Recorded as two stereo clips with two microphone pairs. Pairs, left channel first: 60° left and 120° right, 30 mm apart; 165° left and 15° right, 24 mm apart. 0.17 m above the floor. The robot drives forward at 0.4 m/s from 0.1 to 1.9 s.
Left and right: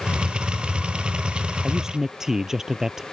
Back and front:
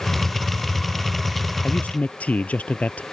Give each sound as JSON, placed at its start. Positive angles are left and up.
{"t": 1.6, "sound": "a man speaking", "azimuth_deg": 165}